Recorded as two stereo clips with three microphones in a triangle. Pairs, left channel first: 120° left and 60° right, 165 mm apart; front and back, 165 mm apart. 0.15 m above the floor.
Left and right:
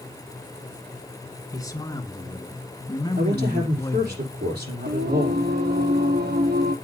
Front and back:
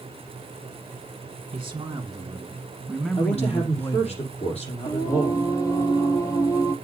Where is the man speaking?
170° left, 1.5 m; by 4.2 s 60° left, 1.8 m.